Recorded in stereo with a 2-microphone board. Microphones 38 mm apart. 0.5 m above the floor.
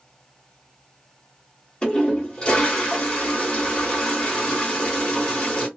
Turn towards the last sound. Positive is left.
turn(degrees=25)  # may be behind; listen again after turning